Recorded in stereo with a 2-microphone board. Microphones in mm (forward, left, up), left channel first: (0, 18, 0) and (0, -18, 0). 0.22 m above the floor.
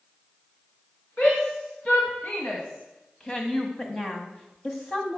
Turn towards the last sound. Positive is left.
turn(degrees=25)  # may be behind; listen again after turning